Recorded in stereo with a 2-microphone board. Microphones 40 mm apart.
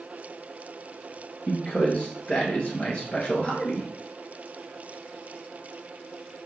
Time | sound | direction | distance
1.5 | a man speaking | 30° left (ahead or behind) | 1.6 m